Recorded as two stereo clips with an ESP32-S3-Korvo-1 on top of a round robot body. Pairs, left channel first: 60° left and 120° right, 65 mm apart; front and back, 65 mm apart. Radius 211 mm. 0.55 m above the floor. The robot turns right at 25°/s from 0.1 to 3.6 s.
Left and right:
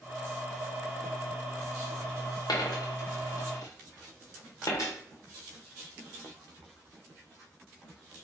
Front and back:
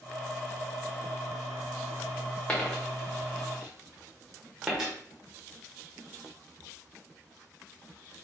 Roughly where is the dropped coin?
Left.